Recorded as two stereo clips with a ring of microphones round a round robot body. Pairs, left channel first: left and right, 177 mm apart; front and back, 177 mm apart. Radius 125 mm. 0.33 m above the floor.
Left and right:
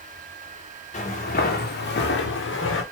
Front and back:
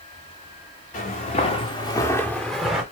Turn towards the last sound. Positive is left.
turn(degrees=95)